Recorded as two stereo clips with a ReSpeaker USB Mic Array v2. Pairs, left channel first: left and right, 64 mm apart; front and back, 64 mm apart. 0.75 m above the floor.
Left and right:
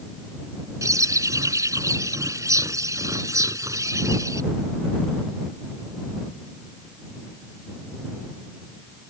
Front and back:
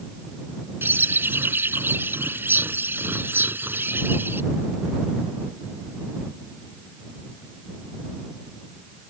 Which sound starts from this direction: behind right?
A bird, at 0.8 s.